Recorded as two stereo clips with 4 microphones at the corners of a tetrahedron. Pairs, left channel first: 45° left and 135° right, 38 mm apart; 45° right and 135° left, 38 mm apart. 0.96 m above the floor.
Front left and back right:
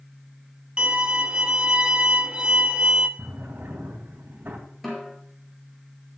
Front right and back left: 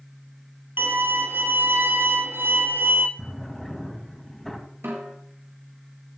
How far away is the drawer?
About 2.5 m.